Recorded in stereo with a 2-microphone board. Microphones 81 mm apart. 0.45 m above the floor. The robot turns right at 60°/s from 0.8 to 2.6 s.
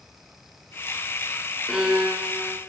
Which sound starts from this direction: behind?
A violin, at 1.7 s.